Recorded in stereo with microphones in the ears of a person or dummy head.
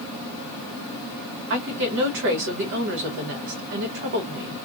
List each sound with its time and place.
1.5 s a woman speaking: 65° right (ahead or behind), 1.6 m